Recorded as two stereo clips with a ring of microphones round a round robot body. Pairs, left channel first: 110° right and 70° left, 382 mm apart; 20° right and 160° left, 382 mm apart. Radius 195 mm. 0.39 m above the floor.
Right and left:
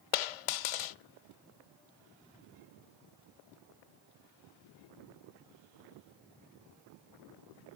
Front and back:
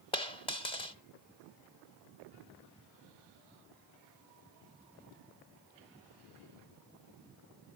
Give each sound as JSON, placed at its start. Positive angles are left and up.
{"t": 0.1, "sound": "a dropped coin", "azimuth_deg": -100, "distance_m": 0.6}